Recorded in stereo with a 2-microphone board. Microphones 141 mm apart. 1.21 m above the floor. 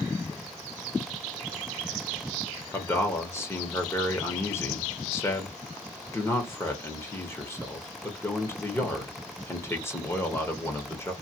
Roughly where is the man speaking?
Centre.